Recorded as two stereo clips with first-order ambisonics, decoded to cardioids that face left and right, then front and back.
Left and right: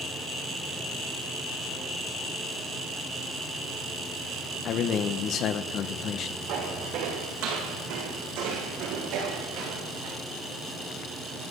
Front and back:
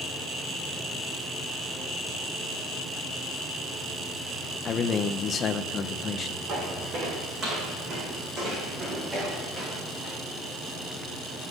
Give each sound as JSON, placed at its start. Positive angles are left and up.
{"t": 4.7, "sound": "a man speaking", "azimuth_deg": 55, "distance_m": 0.9}
{"t": 6.5, "sound": "footsteps", "azimuth_deg": -120, "distance_m": 4.5}